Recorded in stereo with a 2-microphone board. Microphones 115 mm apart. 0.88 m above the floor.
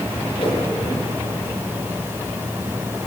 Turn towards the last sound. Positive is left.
turn(degrees=45)  # may be behind; listen again after turning